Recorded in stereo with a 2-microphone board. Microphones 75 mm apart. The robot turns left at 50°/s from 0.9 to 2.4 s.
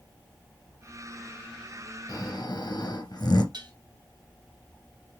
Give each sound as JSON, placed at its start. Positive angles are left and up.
{"t": 2.1, "sound": "snoring", "side_deg": 55, "distance_m": 2.5}
{"t": 3.5, "sound": "dishes clattering", "side_deg": -80, "distance_m": 3.0}